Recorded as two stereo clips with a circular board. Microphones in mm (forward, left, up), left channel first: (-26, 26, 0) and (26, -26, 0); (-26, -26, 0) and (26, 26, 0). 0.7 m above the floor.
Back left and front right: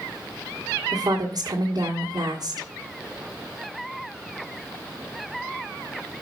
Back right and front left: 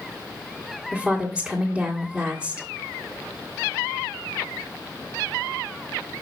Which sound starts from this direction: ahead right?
A woman speaking, at 0.9 s.